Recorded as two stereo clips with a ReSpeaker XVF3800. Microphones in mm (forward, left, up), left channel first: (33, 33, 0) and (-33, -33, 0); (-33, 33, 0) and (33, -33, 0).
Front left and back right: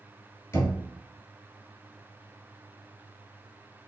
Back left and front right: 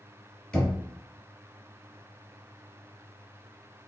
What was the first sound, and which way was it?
Knocking, 70° left.